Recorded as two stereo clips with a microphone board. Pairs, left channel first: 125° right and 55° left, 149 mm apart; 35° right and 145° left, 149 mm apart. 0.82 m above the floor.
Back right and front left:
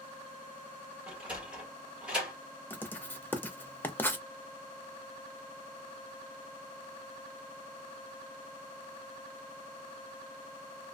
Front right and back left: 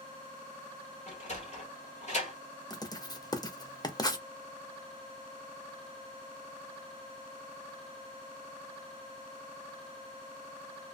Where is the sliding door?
25° right, 1.5 m.